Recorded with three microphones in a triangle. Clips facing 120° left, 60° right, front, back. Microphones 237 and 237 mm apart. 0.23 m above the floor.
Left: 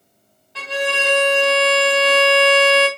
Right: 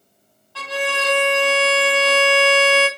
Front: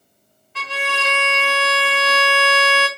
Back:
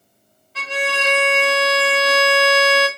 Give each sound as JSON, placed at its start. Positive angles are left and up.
{"t": 0.6, "sound": "a violin", "azimuth_deg": 180, "distance_m": 1.7}